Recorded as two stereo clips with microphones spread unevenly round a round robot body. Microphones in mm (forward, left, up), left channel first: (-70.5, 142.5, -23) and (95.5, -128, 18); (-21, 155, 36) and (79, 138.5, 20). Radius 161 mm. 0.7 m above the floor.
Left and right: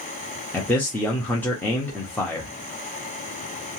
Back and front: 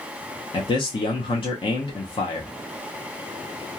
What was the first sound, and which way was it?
A man speaking, 165° right.